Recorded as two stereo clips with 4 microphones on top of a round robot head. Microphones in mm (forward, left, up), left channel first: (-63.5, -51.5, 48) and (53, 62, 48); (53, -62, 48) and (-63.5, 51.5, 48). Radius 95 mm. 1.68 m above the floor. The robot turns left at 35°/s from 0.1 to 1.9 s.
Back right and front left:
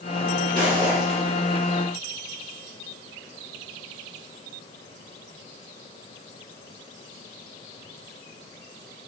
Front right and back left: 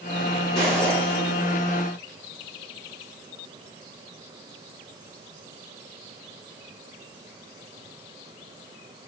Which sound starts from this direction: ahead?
Footsteps, at 0.6 s.